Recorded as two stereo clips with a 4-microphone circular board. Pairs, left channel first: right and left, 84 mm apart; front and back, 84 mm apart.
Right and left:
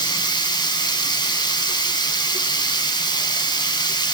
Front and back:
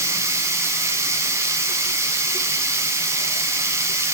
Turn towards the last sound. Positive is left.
turn(degrees=-125)